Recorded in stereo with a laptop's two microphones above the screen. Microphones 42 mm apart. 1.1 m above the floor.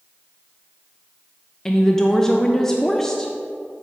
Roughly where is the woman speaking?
Centre.